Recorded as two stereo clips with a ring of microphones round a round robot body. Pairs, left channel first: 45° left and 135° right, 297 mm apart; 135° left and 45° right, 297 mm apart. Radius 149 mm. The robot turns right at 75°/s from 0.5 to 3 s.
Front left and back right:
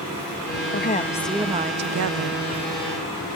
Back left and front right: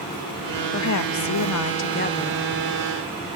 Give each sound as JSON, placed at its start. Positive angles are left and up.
{"t": 0.7, "sound": "a woman speaking", "azimuth_deg": 95, "distance_m": 1.1}